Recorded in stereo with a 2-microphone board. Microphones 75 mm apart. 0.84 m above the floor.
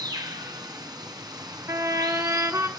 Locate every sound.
0.0 s running water: 65° right (ahead or behind), 2.5 m
1.7 s a trumpet: 40° right (ahead or behind), 1.1 m